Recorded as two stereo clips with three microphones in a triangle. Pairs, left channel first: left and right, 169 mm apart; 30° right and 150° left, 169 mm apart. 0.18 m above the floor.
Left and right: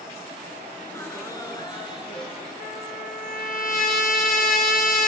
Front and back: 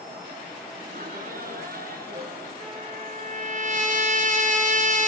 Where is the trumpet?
115° left, 1.2 m.